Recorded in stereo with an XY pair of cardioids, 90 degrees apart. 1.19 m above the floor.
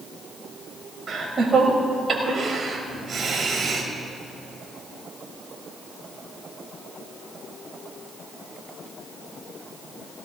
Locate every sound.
1.1 s laughter: 45° right, 5.5 m